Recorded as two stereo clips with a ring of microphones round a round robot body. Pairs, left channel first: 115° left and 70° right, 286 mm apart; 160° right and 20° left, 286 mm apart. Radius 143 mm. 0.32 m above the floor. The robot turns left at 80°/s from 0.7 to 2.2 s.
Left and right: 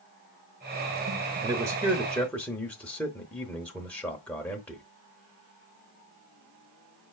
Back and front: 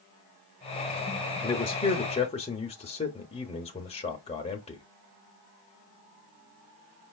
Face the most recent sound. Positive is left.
turn(degrees=-170)